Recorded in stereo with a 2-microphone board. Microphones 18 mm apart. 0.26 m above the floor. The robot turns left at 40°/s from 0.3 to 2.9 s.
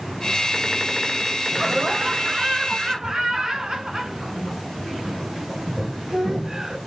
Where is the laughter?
40° right, 1.5 m; by 6.8 s 95° right, 1.5 m.